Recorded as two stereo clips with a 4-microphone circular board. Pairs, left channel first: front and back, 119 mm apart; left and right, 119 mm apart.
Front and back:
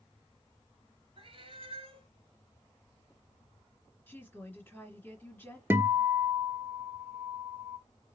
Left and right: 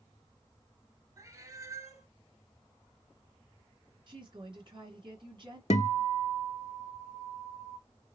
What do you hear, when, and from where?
1.2 s a cat meowing: 150° right, 1.0 m
4.1 s a woman speaking: 70° right, 2 m
5.7 s a guitar: 110° left, 0.5 m